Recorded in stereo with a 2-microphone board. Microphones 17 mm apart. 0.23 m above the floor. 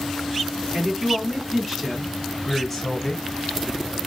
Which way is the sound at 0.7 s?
25° right (ahead or behind).